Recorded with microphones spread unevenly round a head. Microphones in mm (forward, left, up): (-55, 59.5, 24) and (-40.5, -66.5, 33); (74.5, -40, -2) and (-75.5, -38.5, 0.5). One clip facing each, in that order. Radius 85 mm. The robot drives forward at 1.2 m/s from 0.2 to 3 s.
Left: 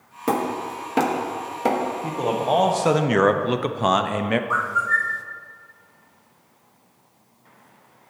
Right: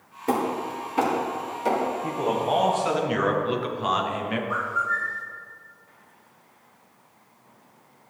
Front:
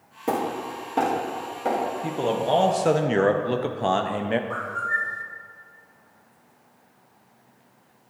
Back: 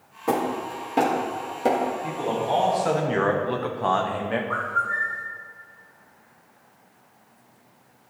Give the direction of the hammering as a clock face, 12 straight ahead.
10 o'clock.